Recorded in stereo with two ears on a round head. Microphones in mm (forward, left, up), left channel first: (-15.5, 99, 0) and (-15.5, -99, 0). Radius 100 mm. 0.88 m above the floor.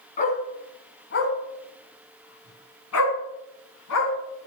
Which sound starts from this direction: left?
A dog barking, at 0.2 s.